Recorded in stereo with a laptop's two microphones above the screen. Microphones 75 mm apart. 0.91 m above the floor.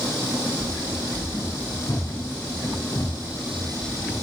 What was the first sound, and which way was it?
Running footsteps, 65° left (ahead or behind).